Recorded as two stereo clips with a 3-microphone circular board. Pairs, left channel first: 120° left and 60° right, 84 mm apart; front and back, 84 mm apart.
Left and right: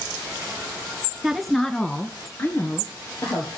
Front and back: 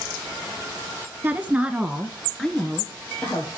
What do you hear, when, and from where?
1.2 s a woman speaking: 140° right, 1.4 m; by 3.5 s 70° left, 2.5 m